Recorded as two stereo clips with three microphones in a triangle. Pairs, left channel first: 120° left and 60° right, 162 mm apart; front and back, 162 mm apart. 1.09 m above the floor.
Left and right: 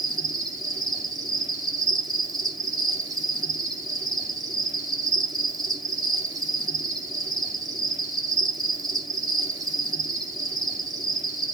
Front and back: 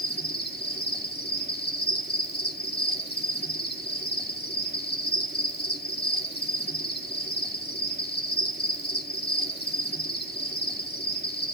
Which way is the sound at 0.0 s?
5° left.